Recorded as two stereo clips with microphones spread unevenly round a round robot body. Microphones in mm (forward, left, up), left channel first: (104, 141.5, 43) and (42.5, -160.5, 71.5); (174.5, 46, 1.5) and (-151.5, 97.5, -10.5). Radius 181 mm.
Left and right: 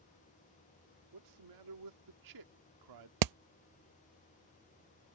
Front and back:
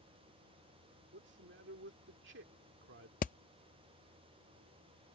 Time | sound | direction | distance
1.1 | a man speaking | 130° right | ?
3.2 | hammering | 80° right | ?